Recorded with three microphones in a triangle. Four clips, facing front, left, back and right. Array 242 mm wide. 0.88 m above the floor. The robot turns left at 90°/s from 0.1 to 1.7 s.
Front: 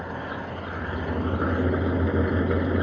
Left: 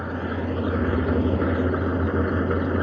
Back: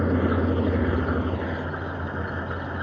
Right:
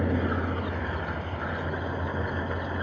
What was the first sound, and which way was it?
An engine running, 165° right.